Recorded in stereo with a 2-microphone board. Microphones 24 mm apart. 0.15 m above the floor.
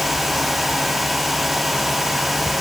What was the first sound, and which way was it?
Only background noise.